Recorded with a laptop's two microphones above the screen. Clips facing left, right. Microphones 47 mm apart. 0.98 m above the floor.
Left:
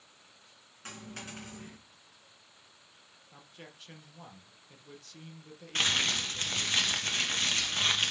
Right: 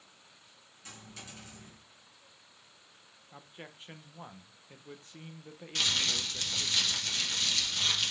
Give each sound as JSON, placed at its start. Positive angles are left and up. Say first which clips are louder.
{"t": 0.8, "sound": "a dropped coin", "louder": "left 5 dB", "side_deg": 50, "distance_m": 3.0}
{"t": 3.3, "sound": "a man speaking", "louder": "right 3 dB", "side_deg": -20, "distance_m": 0.8}
{"t": 5.8, "sound": "crumpling", "louder": "left 3 dB", "side_deg": 35, "distance_m": 1.2}